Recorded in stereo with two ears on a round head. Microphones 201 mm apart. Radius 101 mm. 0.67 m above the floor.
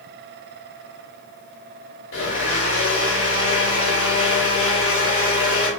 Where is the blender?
60° left (ahead or behind), 1.4 m.